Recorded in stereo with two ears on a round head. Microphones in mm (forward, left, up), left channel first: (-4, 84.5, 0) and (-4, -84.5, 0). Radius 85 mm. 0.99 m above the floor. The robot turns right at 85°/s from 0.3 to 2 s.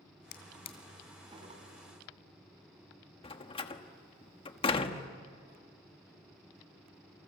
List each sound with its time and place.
0.3 s a drawer: 60° left (ahead or behind), 2.5 m; by 1.6 s 50° right (ahead or behind), 2.5 m
3.2 s a door slam: 30° left (ahead or behind), 1.3 m